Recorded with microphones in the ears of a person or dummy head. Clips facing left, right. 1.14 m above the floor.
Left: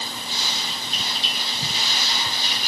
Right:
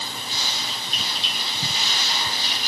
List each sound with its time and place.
Only background noise.